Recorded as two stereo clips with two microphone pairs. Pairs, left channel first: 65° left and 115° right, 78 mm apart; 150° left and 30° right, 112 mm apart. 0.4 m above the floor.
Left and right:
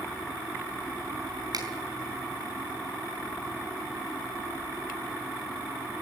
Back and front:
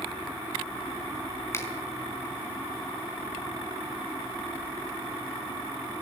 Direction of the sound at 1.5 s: 140° right.